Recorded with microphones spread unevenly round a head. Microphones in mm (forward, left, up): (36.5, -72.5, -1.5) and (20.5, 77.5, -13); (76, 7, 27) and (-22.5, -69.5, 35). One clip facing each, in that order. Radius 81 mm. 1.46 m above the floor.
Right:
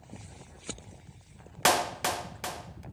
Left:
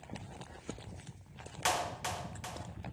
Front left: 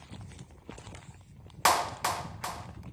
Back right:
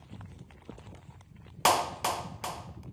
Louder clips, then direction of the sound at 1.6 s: Right 8 dB, back right 1 dB; 70° right.